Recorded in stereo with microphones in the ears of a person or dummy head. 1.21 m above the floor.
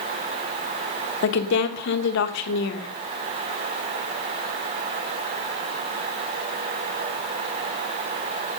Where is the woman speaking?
65° left (ahead or behind), 1.2 m.